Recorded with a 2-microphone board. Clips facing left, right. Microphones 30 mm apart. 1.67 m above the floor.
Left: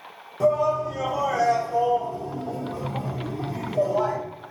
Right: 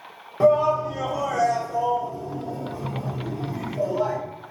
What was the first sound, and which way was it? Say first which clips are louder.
A shout: right 3 dB; 35° right (ahead or behind).